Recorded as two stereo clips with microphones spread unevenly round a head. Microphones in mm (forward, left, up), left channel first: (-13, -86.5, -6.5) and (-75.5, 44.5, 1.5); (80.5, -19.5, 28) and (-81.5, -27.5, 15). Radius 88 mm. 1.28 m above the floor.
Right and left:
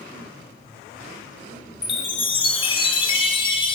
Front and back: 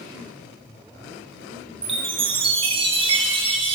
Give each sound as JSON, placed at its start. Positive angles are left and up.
{"t": 1.8, "sound": "a chime", "azimuth_deg": -120, "distance_m": 1.2}